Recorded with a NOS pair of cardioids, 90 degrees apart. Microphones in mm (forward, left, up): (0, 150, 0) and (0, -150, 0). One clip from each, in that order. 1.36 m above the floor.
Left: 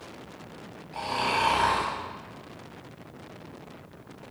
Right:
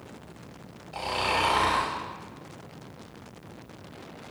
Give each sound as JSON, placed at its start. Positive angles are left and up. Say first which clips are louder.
{"t": 0.9, "sound": "snoring", "louder": "even", "azimuth_deg": -35, "distance_m": 2.0}